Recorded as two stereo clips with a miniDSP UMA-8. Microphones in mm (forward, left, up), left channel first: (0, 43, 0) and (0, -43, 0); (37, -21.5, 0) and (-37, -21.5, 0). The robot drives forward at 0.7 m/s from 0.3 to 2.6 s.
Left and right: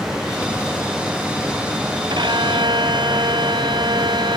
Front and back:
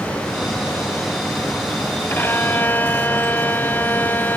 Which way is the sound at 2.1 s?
60° right.